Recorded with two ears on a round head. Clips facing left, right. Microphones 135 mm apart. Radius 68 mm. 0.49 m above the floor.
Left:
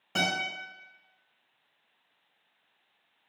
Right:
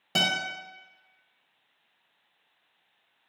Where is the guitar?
40° right (ahead or behind), 0.8 m.